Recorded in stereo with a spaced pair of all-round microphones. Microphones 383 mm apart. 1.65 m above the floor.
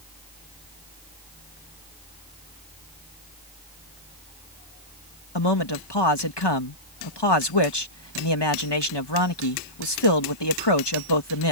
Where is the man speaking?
85° left.